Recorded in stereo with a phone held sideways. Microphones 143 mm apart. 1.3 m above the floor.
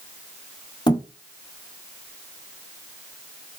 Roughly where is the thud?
Left.